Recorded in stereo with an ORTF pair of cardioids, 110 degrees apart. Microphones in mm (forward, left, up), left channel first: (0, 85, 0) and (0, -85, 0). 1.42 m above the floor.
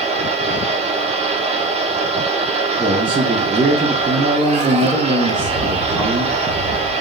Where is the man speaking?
25° right, 1.0 m.